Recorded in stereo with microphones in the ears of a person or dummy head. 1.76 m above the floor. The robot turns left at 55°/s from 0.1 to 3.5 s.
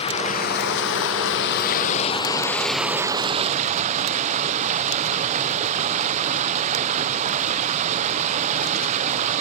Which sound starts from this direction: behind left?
Running water, at 0.0 s.